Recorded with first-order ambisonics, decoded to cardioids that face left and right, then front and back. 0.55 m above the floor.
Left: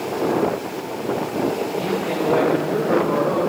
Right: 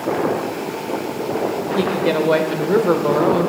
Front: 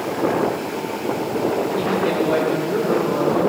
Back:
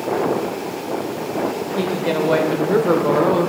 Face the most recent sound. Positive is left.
turn(degrees=-140)